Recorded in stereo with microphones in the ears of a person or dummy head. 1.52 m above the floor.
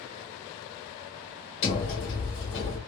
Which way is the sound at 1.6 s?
70° left (ahead or behind).